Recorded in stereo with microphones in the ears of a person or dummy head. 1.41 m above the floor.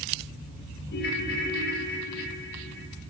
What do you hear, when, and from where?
0.9 s a ringtone: 55° left (ahead or behind), 1.6 m